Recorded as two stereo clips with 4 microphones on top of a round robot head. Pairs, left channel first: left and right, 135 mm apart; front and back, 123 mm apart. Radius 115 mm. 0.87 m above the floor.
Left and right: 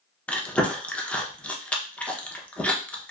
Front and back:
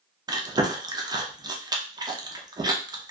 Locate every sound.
0.3 s chewing: 165° left, 0.8 m